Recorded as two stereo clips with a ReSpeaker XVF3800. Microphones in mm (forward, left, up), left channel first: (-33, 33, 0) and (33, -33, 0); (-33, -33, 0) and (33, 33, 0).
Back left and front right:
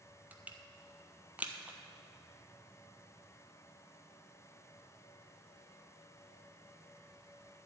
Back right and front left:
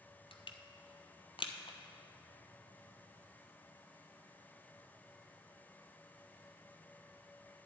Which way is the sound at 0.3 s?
115° right.